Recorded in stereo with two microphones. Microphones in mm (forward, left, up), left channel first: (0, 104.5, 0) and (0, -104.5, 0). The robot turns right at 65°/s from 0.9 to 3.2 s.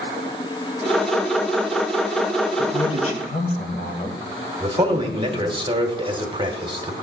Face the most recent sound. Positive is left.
turn(degrees=-25)  # may be behind; listen again after turning